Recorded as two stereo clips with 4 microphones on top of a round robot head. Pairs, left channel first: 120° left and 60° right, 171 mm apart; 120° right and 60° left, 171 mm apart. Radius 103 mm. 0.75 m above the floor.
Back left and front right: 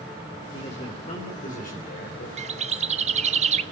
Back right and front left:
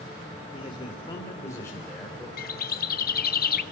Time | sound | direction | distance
0.5 | a man speaking | straight behind | 3 m
2.4 | a bird | 100° right | 1.2 m